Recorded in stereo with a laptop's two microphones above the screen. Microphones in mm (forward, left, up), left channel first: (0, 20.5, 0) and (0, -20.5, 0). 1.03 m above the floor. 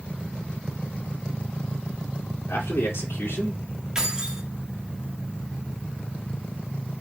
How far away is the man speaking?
About 2.5 m.